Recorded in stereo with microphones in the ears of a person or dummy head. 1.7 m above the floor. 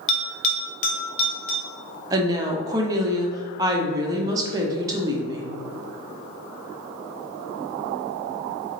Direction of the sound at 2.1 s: 20° right (ahead or behind).